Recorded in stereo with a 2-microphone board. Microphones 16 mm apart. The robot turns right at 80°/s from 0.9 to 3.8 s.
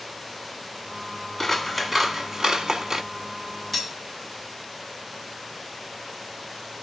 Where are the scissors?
165° left, 1.0 m; by 3.0 s 70° right, 1.0 m.